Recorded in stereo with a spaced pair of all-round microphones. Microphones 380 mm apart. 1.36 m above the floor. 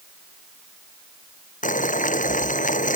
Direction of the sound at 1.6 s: 20° left (ahead or behind).